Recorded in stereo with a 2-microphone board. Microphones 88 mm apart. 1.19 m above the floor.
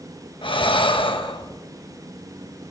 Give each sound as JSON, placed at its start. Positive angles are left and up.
{"t": 0.4, "sound": "breathing", "side_deg": 75, "distance_m": 1.2}